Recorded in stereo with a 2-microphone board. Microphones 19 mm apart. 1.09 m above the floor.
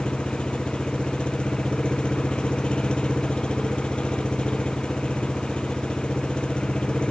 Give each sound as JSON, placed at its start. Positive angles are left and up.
{"t": 0.0, "sound": "an engine running", "side_deg": 50}